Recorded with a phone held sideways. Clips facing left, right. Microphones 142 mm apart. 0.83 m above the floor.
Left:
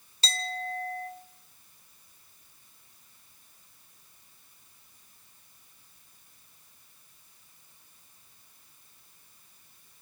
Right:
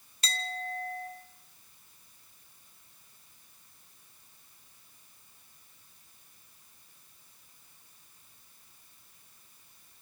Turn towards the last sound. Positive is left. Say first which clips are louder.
# left 3 dB
turn(degrees=35)  # may be behind; listen again after turning